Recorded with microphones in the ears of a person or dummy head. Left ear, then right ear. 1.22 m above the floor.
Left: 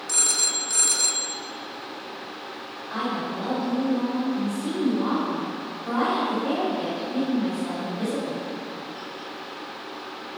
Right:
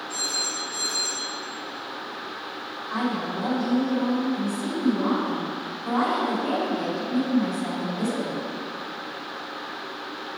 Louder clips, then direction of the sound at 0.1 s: Left 5 dB; 60° left (ahead or behind).